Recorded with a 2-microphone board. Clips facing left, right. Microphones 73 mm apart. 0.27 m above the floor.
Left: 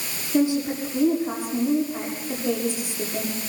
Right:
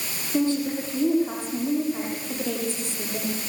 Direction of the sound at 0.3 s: 15° left (ahead or behind).